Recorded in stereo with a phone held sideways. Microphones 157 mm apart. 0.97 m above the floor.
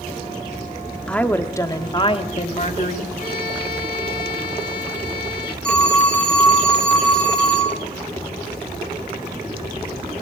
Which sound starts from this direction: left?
A violin, at 3.2 s.